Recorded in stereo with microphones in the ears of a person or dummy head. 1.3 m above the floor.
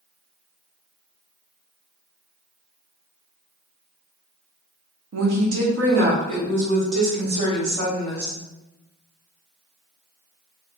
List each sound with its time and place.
5.1 s a woman speaking: 80° right, 1.1 m; by 8.4 s 70° right (ahead or behind), 2.5 m